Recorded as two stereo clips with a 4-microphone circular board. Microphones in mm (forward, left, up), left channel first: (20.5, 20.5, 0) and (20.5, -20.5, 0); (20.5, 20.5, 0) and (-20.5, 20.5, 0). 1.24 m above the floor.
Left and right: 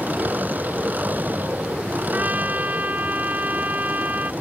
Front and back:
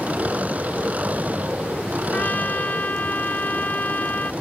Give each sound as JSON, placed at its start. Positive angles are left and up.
{"t": 0.0, "sound": "an engine running", "azimuth_deg": -130}
{"t": 2.1, "sound": "a trumpet", "azimuth_deg": -50}